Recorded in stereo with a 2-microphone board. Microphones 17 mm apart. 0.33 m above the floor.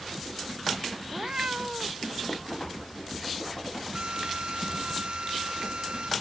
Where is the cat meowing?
55° right (ahead or behind); by 2.1 s 80° right.